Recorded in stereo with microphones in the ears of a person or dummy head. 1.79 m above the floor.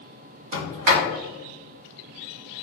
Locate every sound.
0.5 s a sliding door: 45° right (ahead or behind), 0.7 m